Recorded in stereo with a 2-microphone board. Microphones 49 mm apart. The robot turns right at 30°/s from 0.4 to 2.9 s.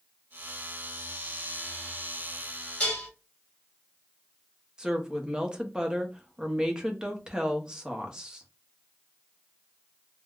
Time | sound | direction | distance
2.8 | dishes clattering | 25° left (ahead or behind) | 1.5 m
4.8 | a woman speaking | 15° right (ahead or behind) | 0.7 m